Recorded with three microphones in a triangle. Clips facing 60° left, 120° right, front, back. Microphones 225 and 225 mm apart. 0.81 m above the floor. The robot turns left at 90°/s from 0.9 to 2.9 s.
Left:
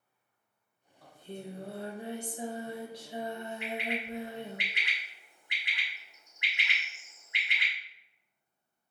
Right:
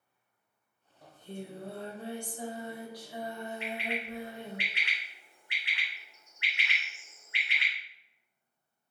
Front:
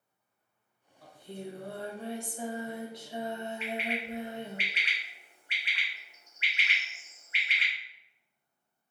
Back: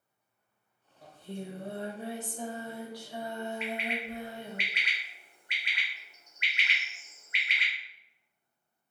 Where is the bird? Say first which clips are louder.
Left 2 dB, even; 135° left, 1.7 m.